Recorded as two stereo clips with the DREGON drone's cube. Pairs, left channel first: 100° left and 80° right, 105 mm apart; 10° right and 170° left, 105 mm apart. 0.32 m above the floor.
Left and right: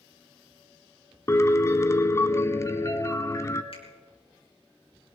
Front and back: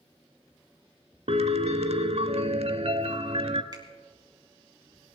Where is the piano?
160° left, 0.7 m.